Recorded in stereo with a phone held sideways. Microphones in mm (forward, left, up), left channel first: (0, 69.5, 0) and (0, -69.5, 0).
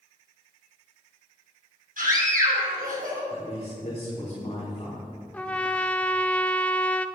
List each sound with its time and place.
2.0 s a scream: 85° right, 5 m
3.3 s a man speaking: 40° left (ahead or behind), 3.5 m
5.3 s a trumpet: 10° left (ahead or behind), 0.6 m